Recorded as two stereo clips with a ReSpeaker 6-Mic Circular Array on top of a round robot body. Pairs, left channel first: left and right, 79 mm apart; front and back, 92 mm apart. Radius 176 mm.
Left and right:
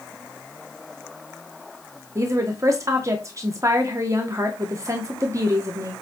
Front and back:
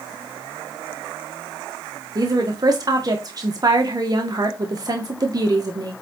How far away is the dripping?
No dripping in this recording.